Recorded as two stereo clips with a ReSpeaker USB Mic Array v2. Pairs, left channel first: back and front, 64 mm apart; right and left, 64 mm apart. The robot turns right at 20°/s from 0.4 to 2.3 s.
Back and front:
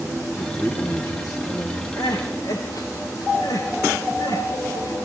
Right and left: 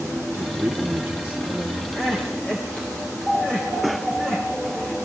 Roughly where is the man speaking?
Behind left.